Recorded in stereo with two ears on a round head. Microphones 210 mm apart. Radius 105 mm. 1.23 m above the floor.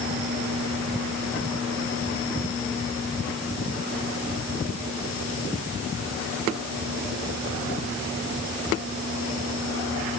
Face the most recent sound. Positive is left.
No sound to turn to.